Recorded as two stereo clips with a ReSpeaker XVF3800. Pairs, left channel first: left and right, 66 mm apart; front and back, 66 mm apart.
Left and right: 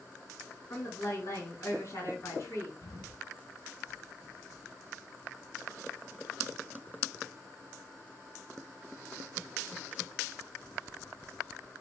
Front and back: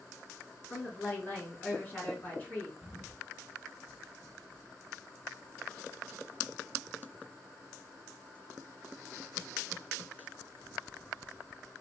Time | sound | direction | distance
0.7 | a woman speaking | 60° left | 3 m
2.8 | an explosion | 100° left | 1.5 m